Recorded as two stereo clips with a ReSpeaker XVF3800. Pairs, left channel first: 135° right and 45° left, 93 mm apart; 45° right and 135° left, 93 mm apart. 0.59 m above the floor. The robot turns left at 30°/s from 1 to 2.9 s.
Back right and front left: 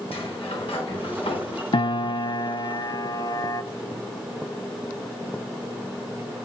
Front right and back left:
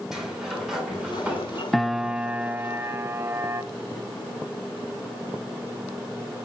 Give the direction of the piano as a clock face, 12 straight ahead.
4 o'clock.